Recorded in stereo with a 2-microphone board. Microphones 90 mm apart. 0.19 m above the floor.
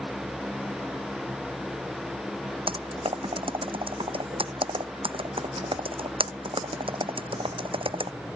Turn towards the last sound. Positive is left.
turn(degrees=-85)